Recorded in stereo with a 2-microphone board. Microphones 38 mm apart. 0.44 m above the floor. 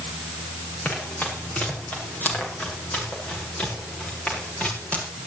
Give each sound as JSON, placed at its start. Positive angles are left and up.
{"t": 0.8, "sound": "running footsteps", "side_deg": 50, "distance_m": 7.5}